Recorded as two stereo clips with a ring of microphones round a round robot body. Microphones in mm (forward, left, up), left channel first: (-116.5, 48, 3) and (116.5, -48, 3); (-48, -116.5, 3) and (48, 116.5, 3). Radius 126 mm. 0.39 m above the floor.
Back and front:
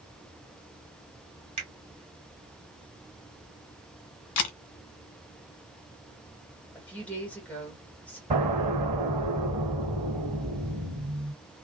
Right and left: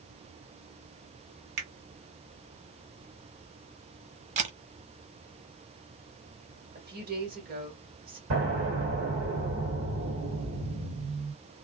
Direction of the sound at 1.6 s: 45° left.